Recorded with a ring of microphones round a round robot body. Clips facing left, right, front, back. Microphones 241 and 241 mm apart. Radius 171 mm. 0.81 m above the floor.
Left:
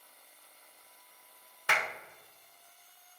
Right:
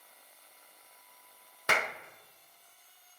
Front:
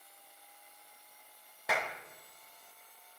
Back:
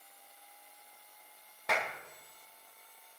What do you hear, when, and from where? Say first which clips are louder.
1.7 s a clap: right 4 dB, even; 85° right, 0.7 m